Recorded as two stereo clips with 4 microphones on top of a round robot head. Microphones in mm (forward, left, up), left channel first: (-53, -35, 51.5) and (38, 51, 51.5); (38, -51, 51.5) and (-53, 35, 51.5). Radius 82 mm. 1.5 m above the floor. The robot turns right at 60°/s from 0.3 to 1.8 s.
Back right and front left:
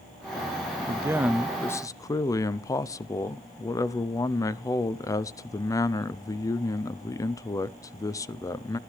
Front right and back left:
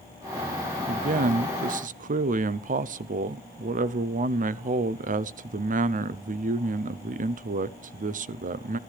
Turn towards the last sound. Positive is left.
turn(degrees=155)